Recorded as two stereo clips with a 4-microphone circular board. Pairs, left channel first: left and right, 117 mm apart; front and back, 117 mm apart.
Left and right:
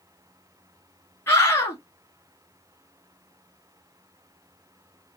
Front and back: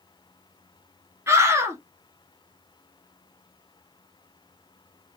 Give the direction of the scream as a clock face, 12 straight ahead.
7 o'clock.